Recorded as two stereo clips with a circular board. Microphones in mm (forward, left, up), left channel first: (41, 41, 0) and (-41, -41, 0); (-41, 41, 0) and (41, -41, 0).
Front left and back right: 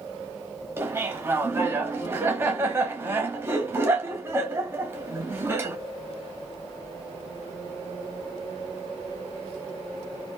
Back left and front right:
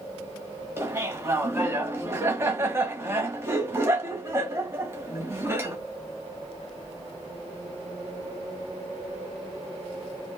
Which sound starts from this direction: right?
Laughter, at 0.8 s.